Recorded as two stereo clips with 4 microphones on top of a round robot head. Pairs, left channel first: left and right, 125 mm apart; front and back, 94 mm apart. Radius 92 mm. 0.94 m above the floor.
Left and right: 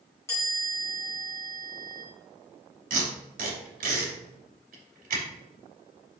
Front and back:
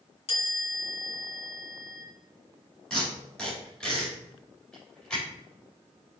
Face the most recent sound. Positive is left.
turn(degrees=-85)